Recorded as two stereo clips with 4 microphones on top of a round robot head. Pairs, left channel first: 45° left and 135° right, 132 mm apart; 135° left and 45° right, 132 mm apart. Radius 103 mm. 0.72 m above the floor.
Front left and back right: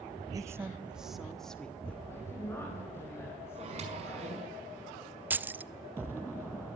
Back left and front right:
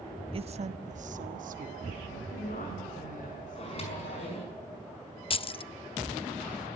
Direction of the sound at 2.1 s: 115° left.